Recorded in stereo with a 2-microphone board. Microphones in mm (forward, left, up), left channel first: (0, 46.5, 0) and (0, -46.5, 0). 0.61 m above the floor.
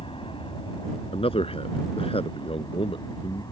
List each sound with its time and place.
0.0 s an aircraft: 65° left (ahead or behind); by 3.5 s 45° left (ahead or behind)
1.1 s a man speaking: 75° left (ahead or behind)